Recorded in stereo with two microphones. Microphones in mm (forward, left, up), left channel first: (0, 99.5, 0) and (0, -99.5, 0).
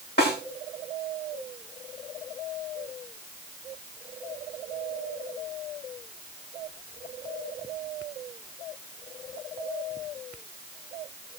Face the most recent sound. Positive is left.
turn(degrees=55)  # may be behind; listen again after turning